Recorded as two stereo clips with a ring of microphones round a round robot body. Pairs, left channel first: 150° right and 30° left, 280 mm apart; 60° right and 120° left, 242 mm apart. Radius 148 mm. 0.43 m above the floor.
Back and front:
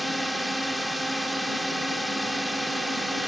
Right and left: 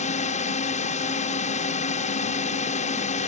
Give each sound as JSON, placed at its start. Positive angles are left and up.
{"t": 0.0, "sound": "a drone", "azimuth_deg": -60}